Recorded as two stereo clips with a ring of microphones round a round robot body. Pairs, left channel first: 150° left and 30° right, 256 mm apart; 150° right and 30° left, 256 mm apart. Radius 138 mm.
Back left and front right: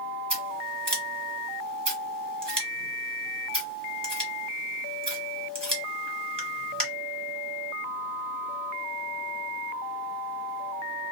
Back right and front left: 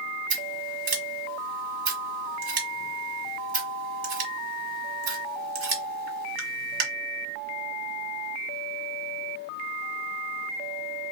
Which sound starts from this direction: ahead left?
Scissors, at 0.3 s.